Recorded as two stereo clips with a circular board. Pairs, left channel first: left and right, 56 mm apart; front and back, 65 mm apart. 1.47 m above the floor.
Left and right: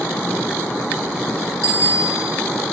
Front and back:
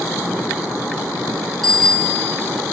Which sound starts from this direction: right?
A bicycle bell, at 1.6 s.